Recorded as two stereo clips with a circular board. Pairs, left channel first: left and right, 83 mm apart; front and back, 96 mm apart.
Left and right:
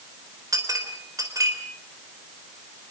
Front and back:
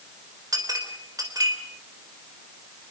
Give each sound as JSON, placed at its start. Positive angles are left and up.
{"t": 0.5, "sound": "a clink", "azimuth_deg": -135, "distance_m": 3.5}